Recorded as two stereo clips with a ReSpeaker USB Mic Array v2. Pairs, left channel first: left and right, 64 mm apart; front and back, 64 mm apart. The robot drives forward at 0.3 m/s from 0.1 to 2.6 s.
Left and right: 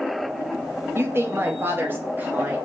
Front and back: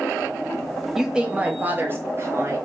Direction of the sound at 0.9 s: 100° right.